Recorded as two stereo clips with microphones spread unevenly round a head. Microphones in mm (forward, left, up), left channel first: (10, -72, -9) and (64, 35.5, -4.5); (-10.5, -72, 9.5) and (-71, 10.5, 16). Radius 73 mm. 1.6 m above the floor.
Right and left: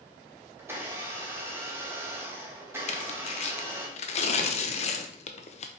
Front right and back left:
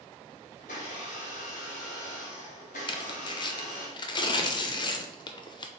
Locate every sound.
0.6 s a blender: 10° right, 1.7 m
2.9 s tearing paper: 95° right, 0.8 m